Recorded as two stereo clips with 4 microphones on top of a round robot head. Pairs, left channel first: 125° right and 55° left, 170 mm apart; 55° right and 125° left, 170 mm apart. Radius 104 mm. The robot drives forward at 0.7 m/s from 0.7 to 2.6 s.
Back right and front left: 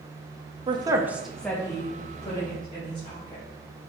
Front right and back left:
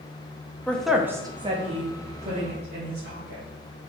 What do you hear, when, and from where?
0.7 s a woman speaking: 25° left, 0.6 m; by 3.5 s 175° left, 1.2 m